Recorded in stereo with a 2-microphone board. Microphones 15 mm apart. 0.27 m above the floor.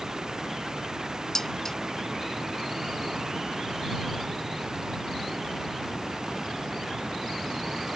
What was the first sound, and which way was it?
Dishes clattering, 25° left (ahead or behind).